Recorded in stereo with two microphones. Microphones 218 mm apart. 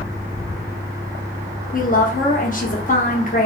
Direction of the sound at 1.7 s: 40° left (ahead or behind).